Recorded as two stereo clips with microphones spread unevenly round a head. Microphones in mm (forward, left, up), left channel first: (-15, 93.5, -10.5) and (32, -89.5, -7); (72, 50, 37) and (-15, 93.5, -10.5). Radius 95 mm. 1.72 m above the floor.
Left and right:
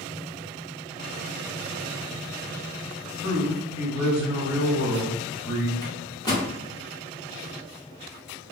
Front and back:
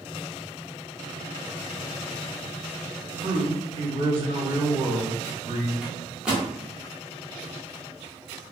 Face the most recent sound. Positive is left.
turn(degrees=45)